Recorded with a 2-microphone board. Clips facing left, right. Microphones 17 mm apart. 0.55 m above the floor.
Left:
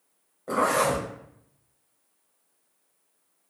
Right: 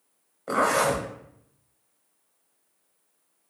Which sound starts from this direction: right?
A zipper, at 0.5 s.